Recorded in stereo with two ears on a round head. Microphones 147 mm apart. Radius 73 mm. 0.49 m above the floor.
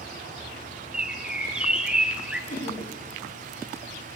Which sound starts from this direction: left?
Laughter, at 2.5 s.